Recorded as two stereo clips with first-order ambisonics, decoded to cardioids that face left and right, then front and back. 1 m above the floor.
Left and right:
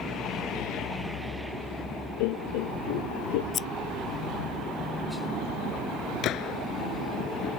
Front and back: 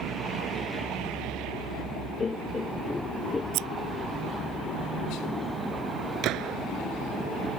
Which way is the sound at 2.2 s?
75° left.